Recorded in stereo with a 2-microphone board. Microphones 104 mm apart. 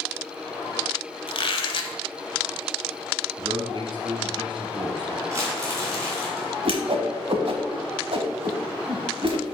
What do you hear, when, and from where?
1.3 s a squeak: 60° left (ahead or behind), 0.9 m
3.4 s a man speaking: 50° right (ahead or behind), 2.5 m
5.3 s crumpling: 25° right (ahead or behind), 3 m
6.7 s a whoosh: 60° right (ahead or behind), 1.0 m